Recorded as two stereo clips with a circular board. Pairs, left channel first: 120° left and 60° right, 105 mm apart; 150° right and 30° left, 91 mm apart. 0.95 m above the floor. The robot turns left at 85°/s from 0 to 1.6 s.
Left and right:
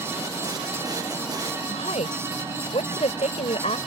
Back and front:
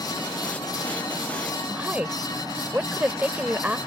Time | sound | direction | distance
1.7 | a woman speaking | 105° left | ?